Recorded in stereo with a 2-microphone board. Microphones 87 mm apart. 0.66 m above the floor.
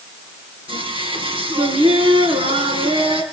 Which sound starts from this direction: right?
Singing, at 0.7 s.